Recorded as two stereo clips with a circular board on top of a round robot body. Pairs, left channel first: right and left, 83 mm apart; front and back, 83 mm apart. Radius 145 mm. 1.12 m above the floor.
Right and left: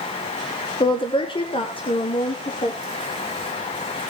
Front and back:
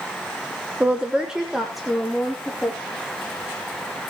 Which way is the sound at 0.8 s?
105° right.